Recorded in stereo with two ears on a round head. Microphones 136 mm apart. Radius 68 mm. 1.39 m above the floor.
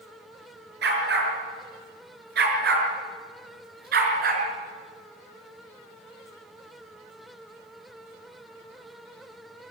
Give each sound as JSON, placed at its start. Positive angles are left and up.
{"t": 0.8, "sound": "a dog barking", "side_deg": -75, "distance_m": 6.5}